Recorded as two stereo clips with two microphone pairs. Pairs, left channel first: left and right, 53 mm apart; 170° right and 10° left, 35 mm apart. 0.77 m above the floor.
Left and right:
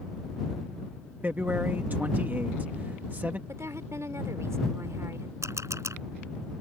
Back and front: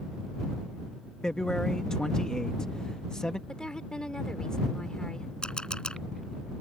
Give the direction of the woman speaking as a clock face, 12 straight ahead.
4 o'clock.